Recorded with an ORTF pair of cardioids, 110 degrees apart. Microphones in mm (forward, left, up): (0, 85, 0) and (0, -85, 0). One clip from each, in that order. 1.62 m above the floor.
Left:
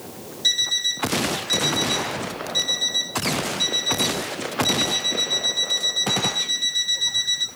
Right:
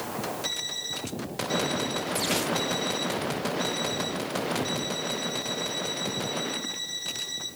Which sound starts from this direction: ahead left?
An alarm clock, at 0.4 s.